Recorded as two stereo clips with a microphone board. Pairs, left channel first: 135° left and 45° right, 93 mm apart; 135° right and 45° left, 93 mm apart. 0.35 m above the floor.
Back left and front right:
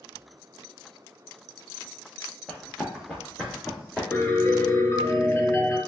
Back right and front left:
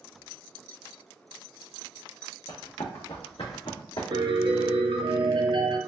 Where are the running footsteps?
140° right, 1.0 m.